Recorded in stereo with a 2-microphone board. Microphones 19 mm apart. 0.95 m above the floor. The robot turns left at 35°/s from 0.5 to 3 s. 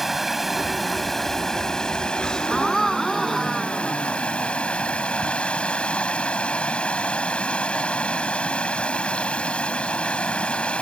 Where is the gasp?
35° left (ahead or behind); by 4.5 s 5° left (ahead or behind).